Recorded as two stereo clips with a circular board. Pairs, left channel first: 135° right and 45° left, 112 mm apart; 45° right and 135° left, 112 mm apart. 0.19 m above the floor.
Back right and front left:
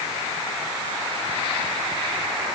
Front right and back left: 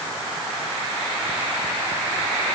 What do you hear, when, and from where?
Only background noise.